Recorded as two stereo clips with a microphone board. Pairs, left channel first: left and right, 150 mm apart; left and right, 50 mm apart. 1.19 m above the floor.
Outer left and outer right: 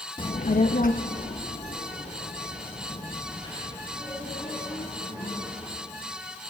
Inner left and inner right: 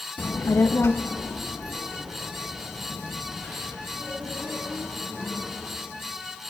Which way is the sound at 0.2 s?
30° left (ahead or behind).